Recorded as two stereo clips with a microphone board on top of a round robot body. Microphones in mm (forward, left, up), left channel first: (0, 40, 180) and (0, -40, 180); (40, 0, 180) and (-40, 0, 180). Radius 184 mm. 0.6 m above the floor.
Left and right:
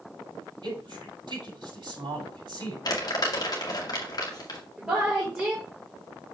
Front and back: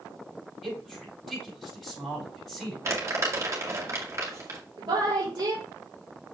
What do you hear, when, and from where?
0.6 s a man speaking: 100° right, 6 m
2.9 s crumpling: 125° left, 1.9 m
4.8 s a woman speaking: 160° right, 3.5 m